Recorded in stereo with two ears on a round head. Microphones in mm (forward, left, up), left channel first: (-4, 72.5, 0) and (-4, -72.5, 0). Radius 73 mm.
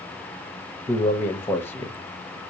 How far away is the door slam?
I don't hear a door slam.